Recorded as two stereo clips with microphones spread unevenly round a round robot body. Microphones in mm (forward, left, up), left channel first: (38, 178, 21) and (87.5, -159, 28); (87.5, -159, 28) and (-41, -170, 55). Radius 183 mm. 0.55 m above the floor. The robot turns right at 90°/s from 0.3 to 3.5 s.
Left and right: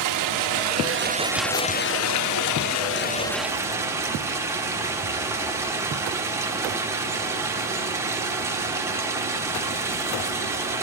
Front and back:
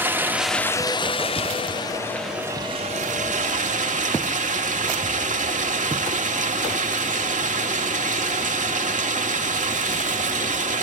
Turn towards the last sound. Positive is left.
turn(degrees=-165)